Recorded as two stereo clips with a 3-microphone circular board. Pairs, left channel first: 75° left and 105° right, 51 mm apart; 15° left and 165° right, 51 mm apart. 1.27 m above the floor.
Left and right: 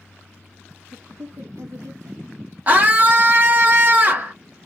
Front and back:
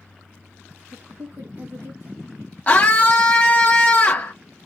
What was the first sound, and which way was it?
A man speaking, 130° right.